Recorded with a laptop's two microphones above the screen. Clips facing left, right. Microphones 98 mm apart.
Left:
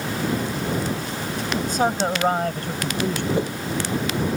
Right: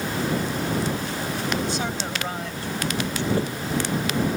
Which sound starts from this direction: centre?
A whoosh, at 3.4 s.